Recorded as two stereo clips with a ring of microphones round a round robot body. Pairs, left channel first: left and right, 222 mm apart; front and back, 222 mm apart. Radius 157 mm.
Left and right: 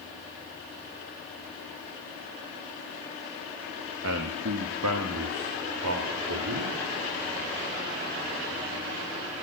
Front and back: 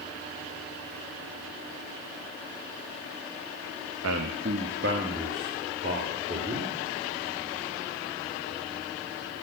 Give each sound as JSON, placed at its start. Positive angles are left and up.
{"t": 4.0, "sound": "a man speaking", "azimuth_deg": -135, "distance_m": 0.6}